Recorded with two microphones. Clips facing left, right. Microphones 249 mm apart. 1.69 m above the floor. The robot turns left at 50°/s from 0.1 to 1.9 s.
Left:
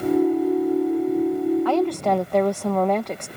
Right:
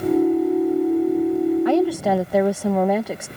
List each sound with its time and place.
1.6 s a woman speaking: 20° right (ahead or behind); by 3.3 s 10° right (ahead or behind)